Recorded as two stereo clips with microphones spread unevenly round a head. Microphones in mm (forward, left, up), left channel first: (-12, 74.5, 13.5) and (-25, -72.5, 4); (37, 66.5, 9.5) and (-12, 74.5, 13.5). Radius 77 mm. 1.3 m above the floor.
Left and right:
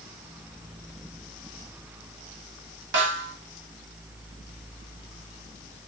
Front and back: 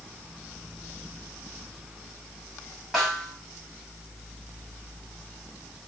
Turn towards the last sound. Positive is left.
turn(degrees=-100)